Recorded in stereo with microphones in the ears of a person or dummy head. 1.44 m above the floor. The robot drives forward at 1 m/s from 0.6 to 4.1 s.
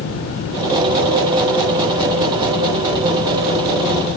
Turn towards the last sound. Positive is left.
No sound to turn to.